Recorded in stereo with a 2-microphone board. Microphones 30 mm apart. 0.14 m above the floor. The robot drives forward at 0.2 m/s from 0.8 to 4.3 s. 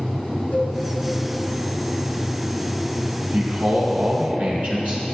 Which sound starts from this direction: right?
A man speaking, at 3.3 s.